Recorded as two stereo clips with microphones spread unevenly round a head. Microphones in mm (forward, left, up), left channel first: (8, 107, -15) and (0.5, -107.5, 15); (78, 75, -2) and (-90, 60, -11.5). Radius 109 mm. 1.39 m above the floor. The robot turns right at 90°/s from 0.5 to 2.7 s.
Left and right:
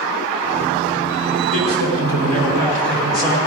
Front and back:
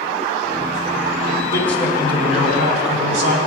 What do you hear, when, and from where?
1.5 s a man speaking: 70° left, 4.5 m; by 3.4 s 175° left, 4.5 m